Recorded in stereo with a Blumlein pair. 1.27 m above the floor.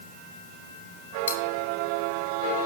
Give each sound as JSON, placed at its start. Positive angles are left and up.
{"t": 1.3, "sound": "cutlery clinking", "azimuth_deg": 70, "distance_m": 1.2}